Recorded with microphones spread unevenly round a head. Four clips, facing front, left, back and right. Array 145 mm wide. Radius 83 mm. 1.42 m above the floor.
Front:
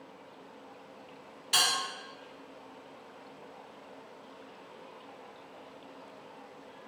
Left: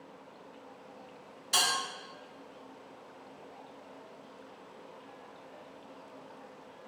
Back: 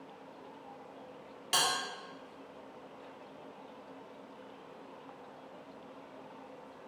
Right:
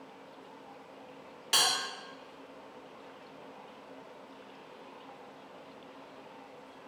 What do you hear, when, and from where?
1.5 s a bell: 135° right, 1.3 m